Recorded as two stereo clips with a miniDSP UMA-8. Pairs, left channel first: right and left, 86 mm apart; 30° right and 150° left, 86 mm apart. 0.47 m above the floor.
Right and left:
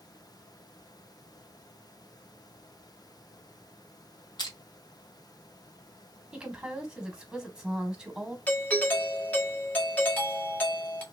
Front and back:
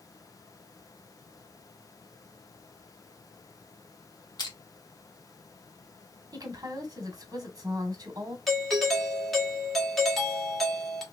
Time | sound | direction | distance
4.4 | crushing | 65° right | 1.4 m
6.3 | a woman speaking | 170° left | 1.3 m
8.5 | a doorbell | 115° right | 1.1 m